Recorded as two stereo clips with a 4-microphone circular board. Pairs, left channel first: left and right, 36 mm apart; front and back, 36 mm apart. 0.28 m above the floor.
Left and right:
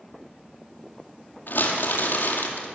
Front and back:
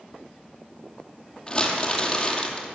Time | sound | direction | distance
1.5 | crumpling | 70° left | 2 m